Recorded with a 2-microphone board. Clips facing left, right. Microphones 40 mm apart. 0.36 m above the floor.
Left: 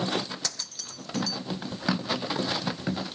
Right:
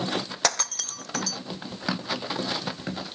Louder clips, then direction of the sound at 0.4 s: Right 10 dB; 60° right (ahead or behind).